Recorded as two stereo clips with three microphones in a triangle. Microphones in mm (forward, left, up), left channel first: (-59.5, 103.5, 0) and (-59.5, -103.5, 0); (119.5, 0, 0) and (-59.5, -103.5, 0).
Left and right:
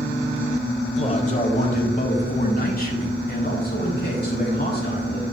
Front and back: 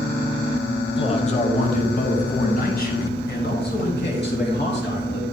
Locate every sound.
1.0 s a man speaking: 65° left, 1.2 m; by 5.2 s 55° left, 3 m